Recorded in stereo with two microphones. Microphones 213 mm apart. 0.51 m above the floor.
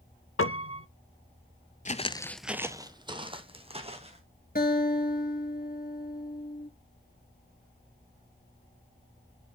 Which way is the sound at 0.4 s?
80° left.